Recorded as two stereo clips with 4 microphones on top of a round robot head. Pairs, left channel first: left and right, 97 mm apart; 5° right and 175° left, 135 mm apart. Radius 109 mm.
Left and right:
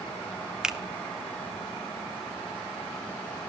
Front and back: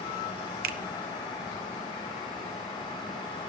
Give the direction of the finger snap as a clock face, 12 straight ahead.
6 o'clock.